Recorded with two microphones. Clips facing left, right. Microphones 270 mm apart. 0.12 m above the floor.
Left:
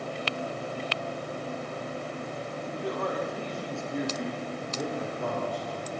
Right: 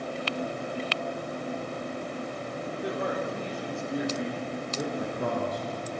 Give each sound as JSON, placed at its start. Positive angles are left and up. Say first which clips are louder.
{"t": 2.7, "sound": "a man speaking", "louder": "even", "side_deg": -20, "distance_m": 6.5}
{"t": 5.0, "sound": "a man speaking", "louder": "right 2 dB", "side_deg": -45, "distance_m": 5.0}